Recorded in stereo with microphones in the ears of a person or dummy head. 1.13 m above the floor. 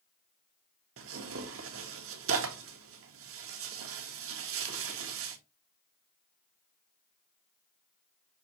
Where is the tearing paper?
65° right (ahead or behind), 0.7 m.